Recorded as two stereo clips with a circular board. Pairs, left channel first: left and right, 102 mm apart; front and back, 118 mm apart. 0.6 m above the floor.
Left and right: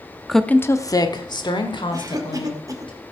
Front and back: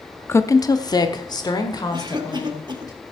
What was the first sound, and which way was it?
A woman speaking, 10° right.